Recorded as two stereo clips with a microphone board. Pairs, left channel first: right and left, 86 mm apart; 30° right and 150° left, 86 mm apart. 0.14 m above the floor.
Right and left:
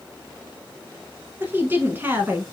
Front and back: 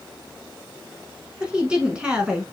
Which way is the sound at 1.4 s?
85° left.